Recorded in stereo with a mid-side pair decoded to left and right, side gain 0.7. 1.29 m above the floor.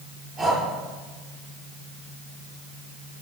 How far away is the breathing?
About 7.5 m.